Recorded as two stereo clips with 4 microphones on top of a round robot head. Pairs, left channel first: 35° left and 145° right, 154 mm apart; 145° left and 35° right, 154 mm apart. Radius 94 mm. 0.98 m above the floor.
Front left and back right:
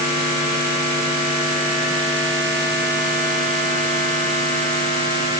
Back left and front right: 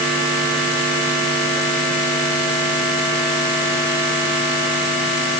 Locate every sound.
Only background noise.